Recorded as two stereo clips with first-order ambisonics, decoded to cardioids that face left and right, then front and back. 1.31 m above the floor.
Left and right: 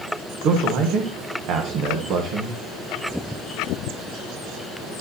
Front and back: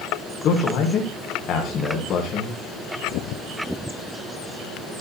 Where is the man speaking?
50° right, 1.3 m.